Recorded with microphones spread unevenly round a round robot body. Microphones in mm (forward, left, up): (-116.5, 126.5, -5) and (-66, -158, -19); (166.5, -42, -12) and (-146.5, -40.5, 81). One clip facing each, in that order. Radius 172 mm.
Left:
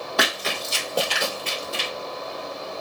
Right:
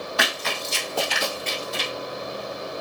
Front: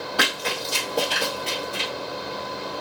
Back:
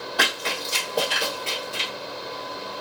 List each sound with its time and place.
0.2 s running footsteps: 70° left, 1.5 m; by 1.9 s 145° left, 1.3 m